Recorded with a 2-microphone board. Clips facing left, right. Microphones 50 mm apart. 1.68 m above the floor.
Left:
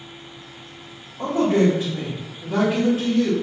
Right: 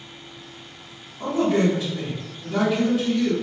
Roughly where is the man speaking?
Left.